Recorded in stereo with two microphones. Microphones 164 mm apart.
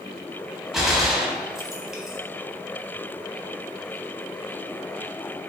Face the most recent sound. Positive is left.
turn(degrees=0)  # may be behind; listen again after turning